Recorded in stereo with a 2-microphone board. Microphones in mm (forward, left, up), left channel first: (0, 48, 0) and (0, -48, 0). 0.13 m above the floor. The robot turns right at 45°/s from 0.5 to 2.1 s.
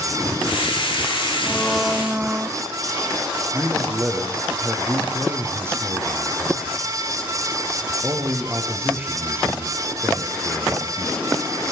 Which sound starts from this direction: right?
A man speaking, at 3.5 s.